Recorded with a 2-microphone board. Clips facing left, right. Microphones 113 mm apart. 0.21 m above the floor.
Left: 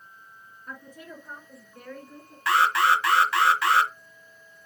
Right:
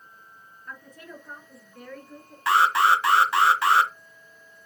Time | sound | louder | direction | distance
0.7 | a woman speaking | left 1 dB | 10° left (ahead or behind) | 3.5 m
2.5 | an alarm | right 2 dB | 25° right (ahead or behind) | 1.0 m